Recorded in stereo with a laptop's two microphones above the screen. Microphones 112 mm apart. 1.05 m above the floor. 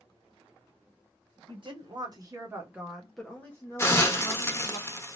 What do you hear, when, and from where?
1.5 s a woman speaking: 50° right (ahead or behind), 1.1 m; by 4.8 s 40° left (ahead or behind), 1.3 m
3.8 s a hiss: 25° left (ahead or behind), 0.7 m